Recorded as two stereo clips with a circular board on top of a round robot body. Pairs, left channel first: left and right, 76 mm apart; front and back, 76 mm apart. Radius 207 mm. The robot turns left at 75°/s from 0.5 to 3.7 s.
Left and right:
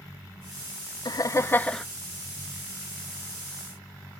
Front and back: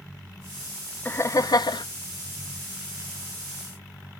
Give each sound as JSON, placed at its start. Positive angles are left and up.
{"t": 1.1, "sound": "laughter", "azimuth_deg": 65, "distance_m": 0.6}